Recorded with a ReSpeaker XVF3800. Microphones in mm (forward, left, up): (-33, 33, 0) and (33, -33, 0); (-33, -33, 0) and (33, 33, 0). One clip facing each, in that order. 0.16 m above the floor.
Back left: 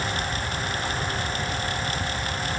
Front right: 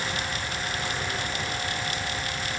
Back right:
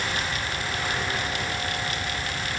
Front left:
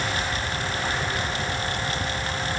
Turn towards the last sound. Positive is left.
No sound to turn to.